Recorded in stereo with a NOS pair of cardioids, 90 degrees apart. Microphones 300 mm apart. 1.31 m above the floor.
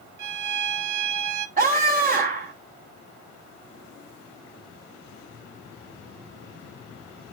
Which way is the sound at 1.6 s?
30° right.